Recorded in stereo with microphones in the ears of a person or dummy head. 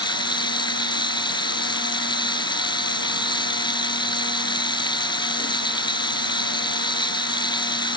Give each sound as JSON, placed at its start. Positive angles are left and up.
{"t": 0.0, "sound": "running water", "side_deg": 15}